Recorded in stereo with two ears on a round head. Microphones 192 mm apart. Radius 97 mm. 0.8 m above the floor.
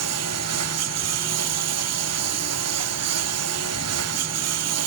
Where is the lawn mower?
80° right.